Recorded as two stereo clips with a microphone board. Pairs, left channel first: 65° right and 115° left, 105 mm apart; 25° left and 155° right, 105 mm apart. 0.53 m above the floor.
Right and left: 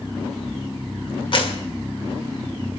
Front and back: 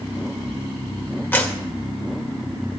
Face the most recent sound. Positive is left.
turn(degrees=-45)